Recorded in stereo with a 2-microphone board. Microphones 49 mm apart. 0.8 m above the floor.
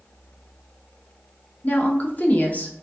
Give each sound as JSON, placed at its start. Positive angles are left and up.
{"t": 1.6, "sound": "a woman speaking", "side_deg": 35, "distance_m": 0.7}